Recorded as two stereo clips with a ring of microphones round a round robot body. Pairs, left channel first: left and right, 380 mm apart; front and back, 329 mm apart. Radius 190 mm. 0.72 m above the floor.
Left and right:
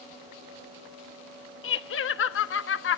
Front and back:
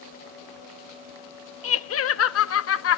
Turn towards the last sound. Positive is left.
turn(degrees=40)